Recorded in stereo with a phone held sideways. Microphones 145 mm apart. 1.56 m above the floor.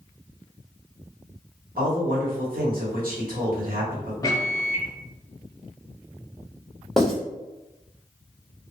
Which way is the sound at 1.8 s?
80° right.